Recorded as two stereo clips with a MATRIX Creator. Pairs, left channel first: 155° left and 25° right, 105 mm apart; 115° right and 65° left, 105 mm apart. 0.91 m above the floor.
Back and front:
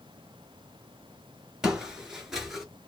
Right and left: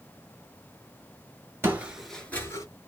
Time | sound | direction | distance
1.6 | footsteps | 50° left | 0.9 m